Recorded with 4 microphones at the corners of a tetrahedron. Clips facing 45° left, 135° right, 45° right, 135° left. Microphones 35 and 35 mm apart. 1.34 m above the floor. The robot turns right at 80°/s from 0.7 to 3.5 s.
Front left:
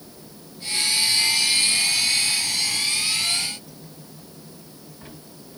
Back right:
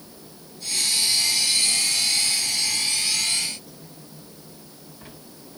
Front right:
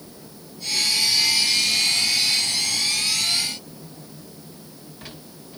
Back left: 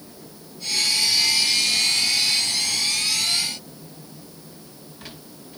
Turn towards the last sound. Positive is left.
No sound to turn to.